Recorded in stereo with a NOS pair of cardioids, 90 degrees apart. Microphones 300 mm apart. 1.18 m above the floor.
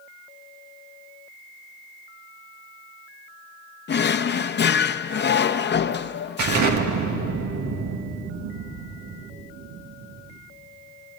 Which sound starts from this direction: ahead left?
A drawer, at 3.9 s.